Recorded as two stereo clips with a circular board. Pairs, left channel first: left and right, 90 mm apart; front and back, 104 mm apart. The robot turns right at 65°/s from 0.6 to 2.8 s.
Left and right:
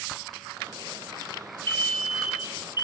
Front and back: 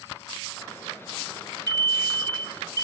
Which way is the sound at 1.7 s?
145° left.